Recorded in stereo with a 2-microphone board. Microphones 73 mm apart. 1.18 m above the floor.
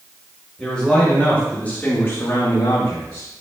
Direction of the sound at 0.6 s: 10° left (ahead or behind).